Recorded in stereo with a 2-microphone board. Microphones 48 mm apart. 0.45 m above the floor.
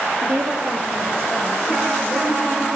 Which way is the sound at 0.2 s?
35° right (ahead or behind).